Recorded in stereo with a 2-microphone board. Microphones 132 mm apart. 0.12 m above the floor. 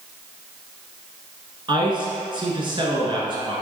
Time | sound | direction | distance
1.7 | a man speaking | 40° right (ahead or behind) | 1.4 m